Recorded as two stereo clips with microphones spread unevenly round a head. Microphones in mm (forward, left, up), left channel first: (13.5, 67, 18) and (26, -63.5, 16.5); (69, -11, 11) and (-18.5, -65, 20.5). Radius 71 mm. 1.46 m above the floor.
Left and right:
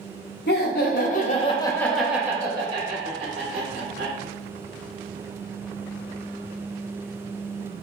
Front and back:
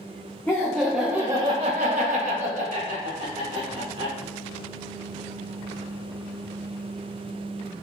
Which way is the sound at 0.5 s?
110° left.